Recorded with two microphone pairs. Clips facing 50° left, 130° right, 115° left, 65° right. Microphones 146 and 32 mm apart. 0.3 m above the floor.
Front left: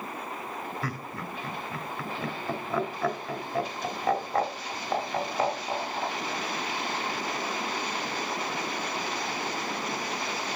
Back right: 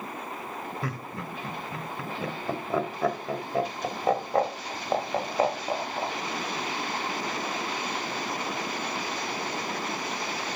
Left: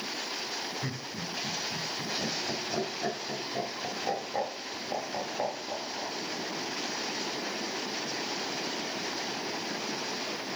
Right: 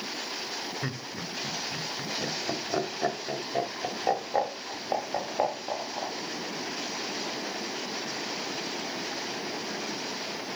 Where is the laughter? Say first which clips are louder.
Back right 1 dB, right 1 dB; 90° right, 1.4 m.